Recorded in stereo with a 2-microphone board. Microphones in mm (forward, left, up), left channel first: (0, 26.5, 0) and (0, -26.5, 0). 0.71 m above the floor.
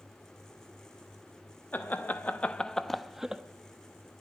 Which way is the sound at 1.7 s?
35° left (ahead or behind).